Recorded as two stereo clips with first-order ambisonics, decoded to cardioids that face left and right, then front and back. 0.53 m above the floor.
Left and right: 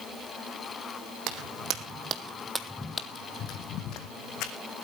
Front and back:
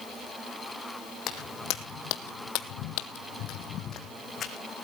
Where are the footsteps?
50° right, 1.8 m; by 4.5 s 60° left, 2 m.